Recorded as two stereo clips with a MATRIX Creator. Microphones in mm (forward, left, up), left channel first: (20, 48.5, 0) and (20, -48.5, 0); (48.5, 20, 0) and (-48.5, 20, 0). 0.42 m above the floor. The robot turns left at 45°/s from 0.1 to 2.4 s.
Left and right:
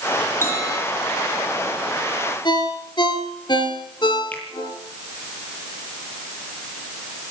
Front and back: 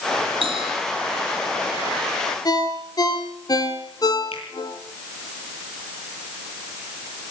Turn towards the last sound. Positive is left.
turn(degrees=15)